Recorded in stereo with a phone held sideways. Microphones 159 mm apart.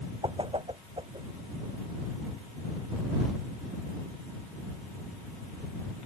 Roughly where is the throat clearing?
No throat clearing in this recording.